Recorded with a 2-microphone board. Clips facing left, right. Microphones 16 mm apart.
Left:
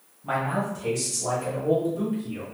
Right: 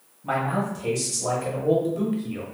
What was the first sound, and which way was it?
A man speaking, 10° right (ahead or behind).